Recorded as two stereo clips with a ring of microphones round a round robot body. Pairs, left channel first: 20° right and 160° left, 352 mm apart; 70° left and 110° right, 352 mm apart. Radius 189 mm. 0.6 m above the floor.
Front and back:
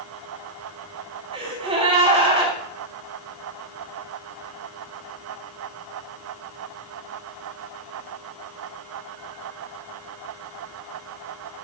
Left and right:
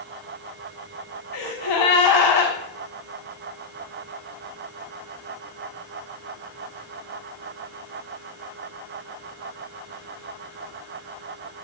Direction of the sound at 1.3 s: 85° left.